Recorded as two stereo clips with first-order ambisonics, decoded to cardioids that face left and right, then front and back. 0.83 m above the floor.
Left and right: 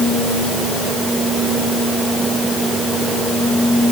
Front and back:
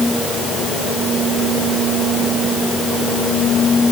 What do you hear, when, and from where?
Only background noise.